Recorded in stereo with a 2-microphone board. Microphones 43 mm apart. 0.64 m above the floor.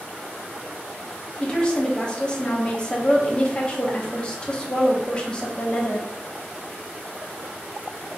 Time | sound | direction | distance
1.4 | a woman speaking | 20° left (ahead or behind) | 1.0 m